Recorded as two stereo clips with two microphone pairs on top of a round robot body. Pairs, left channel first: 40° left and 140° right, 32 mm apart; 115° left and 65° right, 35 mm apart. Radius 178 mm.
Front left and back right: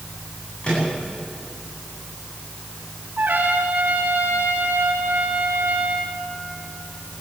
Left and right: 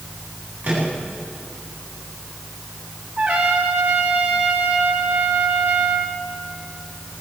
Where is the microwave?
20° right, 9.5 m.